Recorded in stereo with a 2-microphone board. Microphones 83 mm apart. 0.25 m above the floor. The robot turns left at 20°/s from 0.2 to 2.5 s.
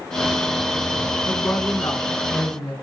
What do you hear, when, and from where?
1.2 s a woman speaking: 35° left (ahead or behind), 3 m; by 2.7 s 55° left (ahead or behind), 3 m